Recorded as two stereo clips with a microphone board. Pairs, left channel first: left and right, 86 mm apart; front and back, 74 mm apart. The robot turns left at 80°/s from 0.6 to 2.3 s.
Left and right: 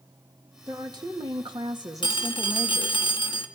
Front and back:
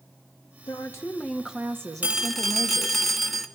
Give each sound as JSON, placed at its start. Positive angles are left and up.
{"t": 0.7, "sound": "a woman speaking", "azimuth_deg": -30, "distance_m": 1.5}
{"t": 2.0, "sound": "a phone ringing", "azimuth_deg": 110, "distance_m": 1.4}